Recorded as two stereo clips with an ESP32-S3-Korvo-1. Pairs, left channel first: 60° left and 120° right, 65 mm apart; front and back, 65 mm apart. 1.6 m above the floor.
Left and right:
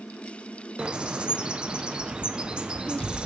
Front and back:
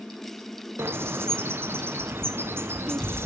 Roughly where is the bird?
Behind.